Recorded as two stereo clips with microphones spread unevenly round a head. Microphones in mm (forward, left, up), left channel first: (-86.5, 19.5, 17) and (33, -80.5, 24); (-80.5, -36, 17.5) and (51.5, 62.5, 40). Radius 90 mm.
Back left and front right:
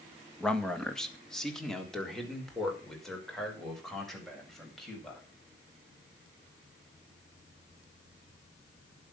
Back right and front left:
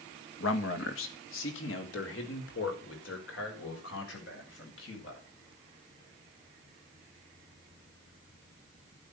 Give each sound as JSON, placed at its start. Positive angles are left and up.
{"t": 0.4, "sound": "a man speaking", "azimuth_deg": -135, "distance_m": 1.6}